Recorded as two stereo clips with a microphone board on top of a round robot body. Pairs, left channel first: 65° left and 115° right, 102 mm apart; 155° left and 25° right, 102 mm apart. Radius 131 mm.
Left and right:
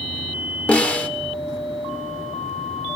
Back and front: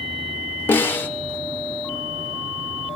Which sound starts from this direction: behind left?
A snare drum, at 0.7 s.